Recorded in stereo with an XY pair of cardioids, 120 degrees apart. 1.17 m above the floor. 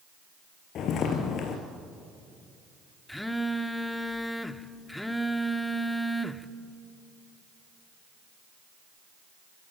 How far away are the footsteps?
About 4 m.